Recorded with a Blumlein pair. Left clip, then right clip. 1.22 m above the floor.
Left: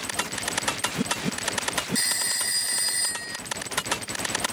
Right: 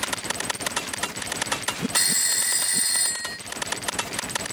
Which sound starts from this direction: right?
A phone ringing, at 1.9 s.